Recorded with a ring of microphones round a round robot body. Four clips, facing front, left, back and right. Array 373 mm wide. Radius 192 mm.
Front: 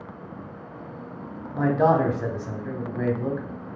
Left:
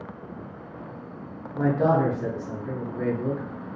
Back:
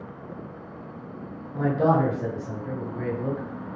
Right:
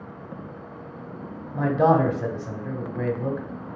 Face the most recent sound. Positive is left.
turn(degrees=-45)